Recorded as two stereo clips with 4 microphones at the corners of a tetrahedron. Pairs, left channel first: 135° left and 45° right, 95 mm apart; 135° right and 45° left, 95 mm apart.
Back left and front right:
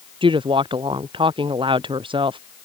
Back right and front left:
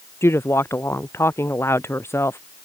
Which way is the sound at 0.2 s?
75° right.